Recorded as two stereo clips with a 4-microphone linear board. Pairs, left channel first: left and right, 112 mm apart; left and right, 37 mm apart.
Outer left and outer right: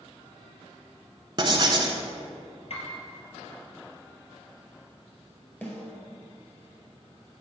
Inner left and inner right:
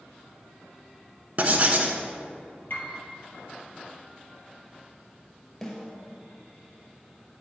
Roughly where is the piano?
Left.